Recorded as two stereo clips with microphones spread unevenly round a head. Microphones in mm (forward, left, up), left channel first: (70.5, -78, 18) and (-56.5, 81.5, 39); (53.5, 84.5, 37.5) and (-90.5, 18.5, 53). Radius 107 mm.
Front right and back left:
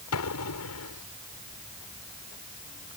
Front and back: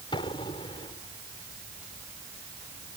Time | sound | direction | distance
0.1 | an explosion | 45° right | ?